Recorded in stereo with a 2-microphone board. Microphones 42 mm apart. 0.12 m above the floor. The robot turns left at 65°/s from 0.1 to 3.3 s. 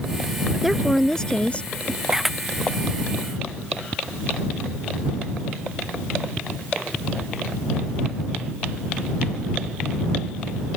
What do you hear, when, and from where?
0.6 s a woman speaking: 170° right; by 2.0 s 100° left
2.1 s a camera shutter: 15° right (ahead or behind); by 2.4 s 5° left (ahead or behind)